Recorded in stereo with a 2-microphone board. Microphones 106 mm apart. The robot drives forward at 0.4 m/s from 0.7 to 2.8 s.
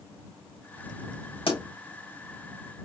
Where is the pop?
65° left (ahead or behind), 3.5 m.